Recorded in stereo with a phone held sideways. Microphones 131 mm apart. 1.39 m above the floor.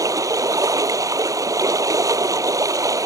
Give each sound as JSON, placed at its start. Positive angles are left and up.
{"t": 0.0, "sound": "running water", "side_deg": -25}